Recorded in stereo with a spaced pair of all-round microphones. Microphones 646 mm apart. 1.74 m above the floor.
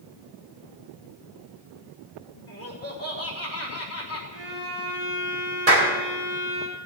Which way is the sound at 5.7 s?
60° right (ahead or behind).